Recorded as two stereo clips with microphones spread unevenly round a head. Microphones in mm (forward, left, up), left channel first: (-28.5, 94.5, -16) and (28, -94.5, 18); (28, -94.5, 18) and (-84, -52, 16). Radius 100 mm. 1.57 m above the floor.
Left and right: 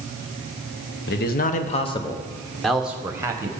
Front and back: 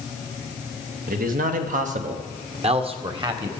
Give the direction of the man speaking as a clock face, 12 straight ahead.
7 o'clock.